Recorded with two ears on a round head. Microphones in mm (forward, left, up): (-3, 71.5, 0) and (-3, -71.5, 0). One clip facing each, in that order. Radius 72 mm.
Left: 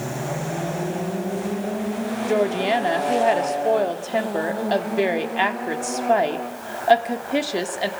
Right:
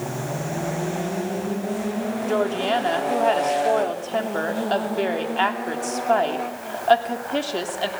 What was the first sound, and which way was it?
A woman speaking, 15° left (ahead or behind).